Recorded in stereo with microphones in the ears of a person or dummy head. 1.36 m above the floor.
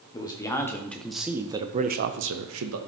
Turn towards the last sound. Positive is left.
turn(degrees=-80)